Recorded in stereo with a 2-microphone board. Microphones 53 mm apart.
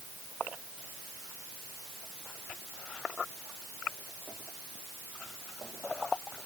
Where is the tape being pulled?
I don't hear tape being pulled.